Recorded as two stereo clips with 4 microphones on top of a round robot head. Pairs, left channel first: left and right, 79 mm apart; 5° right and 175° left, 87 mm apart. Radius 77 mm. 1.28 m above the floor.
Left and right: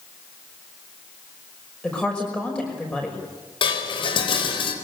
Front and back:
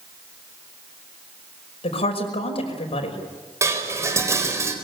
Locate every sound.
1.8 s a woman speaking: 10° left, 5.5 m
3.6 s dishes clattering: 115° left, 4.5 m